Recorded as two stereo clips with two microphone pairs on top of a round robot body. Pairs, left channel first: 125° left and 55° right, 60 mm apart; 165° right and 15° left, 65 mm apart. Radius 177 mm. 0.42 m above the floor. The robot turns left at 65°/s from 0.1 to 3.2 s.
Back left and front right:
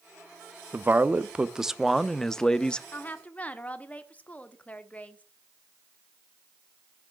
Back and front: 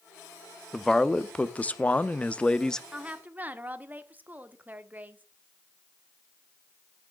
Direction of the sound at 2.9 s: 95° left.